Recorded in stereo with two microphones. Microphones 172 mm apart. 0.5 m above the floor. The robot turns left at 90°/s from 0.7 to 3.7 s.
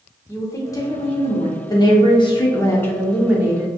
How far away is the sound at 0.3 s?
About 1.0 m.